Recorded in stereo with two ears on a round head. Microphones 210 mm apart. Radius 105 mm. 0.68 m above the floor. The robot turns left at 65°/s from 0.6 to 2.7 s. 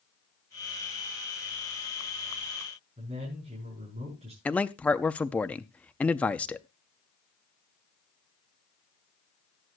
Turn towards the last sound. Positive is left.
turn(degrees=5)  # may be behind; listen again after turning